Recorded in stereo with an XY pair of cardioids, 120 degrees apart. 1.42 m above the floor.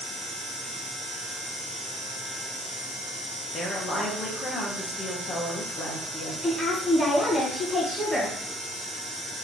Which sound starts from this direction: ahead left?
A woman speaking, at 3.5 s.